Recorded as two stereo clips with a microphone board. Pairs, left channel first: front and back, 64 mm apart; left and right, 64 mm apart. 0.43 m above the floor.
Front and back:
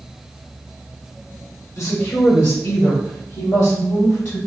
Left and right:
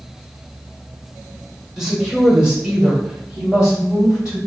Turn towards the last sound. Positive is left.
turn(degrees=-15)